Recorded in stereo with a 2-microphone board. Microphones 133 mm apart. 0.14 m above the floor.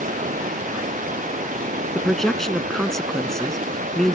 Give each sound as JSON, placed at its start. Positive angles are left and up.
{"t": 0.0, "sound": "running water", "side_deg": -85}
{"t": 1.9, "sound": "a man speaking", "side_deg": 5}